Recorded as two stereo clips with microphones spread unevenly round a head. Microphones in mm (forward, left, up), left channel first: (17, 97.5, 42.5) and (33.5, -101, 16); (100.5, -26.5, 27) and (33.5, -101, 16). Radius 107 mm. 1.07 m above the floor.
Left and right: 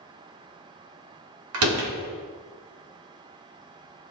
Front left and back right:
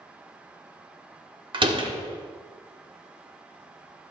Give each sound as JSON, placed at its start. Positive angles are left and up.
{"t": 1.5, "sound": "a door slam", "azimuth_deg": -95, "distance_m": 1.6}